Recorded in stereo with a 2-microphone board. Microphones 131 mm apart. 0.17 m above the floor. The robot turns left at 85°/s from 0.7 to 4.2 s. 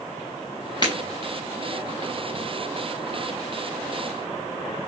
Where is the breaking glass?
35° left (ahead or behind), 2.5 m; by 0.9 s 45° left (ahead or behind), 2.5 m.